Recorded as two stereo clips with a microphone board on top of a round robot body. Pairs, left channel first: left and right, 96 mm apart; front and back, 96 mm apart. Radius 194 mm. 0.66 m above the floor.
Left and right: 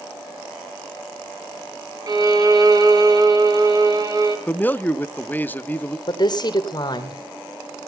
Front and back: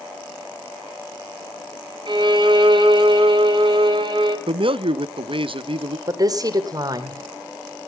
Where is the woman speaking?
135° left, 3.5 m.